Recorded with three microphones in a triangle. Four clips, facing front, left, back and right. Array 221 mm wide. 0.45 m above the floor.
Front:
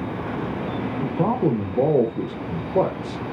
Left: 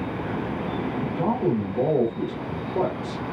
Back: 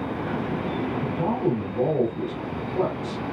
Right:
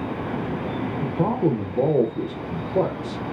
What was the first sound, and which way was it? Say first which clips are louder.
A man speaking: right 3 dB, front 5 dB; 30° right.